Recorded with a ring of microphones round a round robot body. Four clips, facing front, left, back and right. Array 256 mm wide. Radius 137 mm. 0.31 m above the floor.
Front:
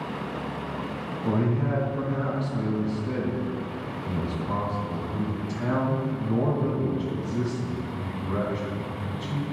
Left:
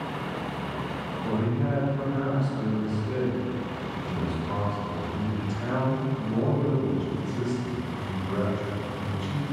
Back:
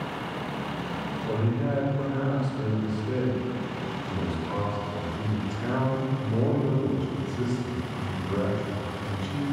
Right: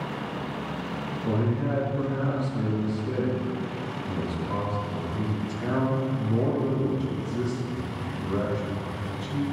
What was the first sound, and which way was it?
A man speaking, 5° right.